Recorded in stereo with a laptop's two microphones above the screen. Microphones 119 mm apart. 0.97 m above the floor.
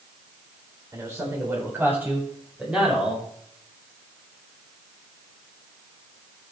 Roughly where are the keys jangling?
I don't hear keys jangling.